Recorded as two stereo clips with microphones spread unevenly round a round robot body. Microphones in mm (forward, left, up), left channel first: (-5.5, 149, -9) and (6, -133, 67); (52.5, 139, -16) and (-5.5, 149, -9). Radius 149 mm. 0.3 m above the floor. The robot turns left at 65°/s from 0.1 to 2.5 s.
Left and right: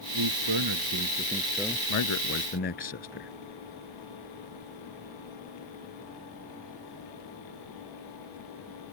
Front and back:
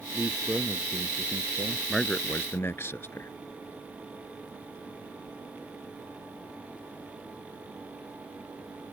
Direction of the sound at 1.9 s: 80° left.